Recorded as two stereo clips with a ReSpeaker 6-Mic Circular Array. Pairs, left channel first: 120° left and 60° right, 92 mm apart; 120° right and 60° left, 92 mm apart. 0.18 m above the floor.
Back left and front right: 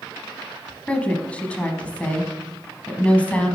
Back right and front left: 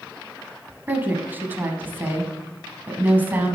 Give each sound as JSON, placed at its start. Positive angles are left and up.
{"t": 0.9, "sound": "a woman speaking", "azimuth_deg": 70, "distance_m": 1.0}